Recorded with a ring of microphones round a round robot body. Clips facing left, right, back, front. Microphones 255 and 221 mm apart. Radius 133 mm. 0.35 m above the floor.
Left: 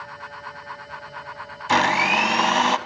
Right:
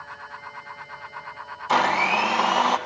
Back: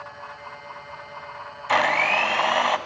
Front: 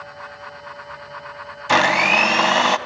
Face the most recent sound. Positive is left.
turn(degrees=40)